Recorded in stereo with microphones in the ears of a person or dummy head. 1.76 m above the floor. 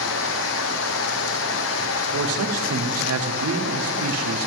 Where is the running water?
70° left (ahead or behind), 1.0 m.